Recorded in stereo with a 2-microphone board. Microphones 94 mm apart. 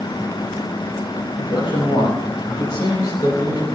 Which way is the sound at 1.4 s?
50° left (ahead or behind).